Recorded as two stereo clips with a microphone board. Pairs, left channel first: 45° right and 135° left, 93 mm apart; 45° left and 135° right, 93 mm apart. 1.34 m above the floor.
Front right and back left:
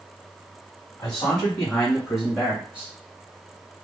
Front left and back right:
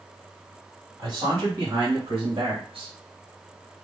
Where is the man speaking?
95° right, 2.0 m; by 2.9 s 125° right, 0.8 m.